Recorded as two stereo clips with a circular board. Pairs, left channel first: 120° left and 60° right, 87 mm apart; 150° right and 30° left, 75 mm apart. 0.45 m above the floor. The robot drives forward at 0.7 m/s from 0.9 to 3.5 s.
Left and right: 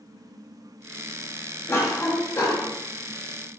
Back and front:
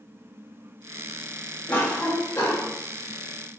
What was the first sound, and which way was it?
A cough, 155° left.